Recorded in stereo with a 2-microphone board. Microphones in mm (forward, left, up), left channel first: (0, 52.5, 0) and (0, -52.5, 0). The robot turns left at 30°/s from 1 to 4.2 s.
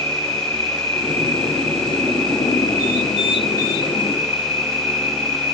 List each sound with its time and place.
0.0 s an insect: 60° right, 1.3 m; by 5.5 s 160° right, 1.3 m